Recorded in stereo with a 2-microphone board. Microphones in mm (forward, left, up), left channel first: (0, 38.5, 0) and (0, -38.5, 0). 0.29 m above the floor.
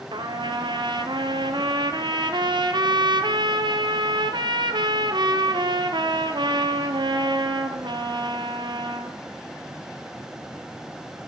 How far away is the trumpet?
About 1.3 m.